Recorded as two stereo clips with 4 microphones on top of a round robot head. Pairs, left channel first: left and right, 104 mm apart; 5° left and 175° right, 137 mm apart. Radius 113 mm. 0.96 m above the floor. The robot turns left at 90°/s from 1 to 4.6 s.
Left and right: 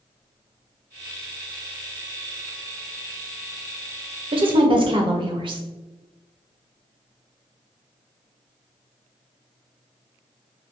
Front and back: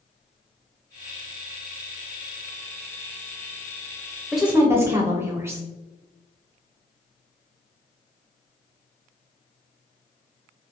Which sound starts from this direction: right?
A woman speaking, at 4.3 s.